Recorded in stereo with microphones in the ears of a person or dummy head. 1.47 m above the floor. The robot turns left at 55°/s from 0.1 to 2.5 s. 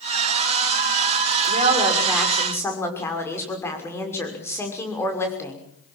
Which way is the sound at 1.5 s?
140° right.